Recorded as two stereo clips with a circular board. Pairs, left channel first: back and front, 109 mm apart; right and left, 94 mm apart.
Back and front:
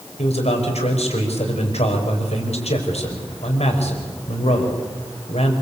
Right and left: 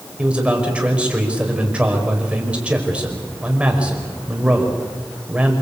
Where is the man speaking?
170° left, 5 m.